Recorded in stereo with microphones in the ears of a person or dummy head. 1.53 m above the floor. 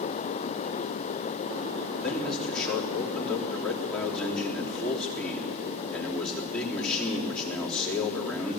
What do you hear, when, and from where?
2.0 s a man speaking: centre (ahead or behind), 3.5 m